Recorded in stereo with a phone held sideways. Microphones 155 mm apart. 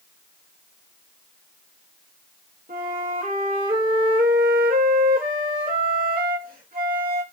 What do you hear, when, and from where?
2.7 s a flute: 65° right (ahead or behind), 0.7 m